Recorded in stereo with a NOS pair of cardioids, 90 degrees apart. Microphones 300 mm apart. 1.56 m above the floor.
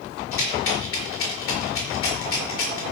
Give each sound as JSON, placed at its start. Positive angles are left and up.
{"t": 0.3, "sound": "a rattle", "azimuth_deg": 50, "distance_m": 4.5}